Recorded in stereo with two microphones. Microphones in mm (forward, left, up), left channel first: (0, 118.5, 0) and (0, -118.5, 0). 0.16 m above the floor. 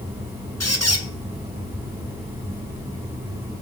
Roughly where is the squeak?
Left.